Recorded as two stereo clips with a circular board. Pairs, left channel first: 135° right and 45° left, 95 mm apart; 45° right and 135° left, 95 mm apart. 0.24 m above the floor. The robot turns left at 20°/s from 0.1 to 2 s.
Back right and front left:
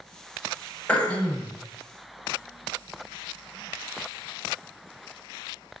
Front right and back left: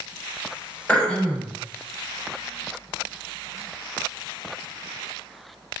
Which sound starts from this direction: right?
Throat clearing, at 0.9 s.